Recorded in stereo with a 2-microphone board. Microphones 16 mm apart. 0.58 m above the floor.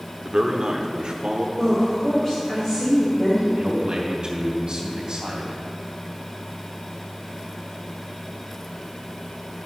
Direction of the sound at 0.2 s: 45° right (ahead or behind).